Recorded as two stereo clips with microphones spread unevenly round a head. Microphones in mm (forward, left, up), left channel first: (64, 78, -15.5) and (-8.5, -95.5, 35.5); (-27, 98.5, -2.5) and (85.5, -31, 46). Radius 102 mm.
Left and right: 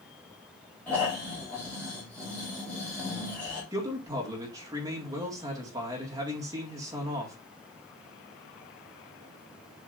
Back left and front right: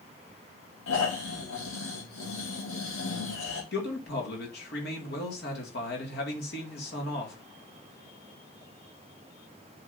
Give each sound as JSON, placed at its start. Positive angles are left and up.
{"t": 0.9, "sound": "snoring", "azimuth_deg": 155, "distance_m": 3.0}
{"t": 3.7, "sound": "a man speaking", "azimuth_deg": 175, "distance_m": 2.0}